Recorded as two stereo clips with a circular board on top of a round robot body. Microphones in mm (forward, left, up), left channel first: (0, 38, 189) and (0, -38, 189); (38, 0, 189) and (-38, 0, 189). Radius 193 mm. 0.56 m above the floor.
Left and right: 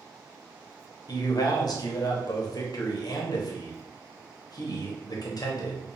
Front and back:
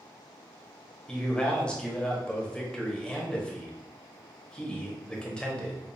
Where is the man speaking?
75° left, 1.1 m.